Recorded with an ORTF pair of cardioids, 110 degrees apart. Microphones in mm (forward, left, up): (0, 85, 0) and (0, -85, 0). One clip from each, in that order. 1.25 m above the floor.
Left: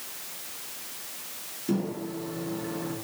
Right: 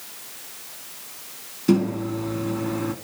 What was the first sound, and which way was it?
A microwave, 65° right.